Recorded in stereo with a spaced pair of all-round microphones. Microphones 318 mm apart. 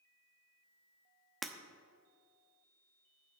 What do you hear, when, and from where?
1.4 s breaking glass: centre (ahead or behind), 1.1 m